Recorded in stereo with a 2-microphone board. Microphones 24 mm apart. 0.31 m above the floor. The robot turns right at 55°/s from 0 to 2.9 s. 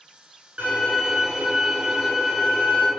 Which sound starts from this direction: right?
A violin, at 0.6 s.